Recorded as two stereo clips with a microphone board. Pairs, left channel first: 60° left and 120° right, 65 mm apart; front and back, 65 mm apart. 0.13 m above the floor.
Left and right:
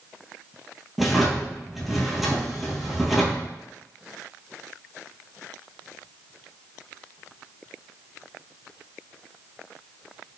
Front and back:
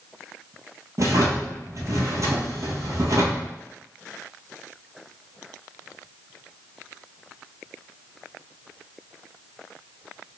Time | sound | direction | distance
1.0 | a drawer | 155° left | 1.0 m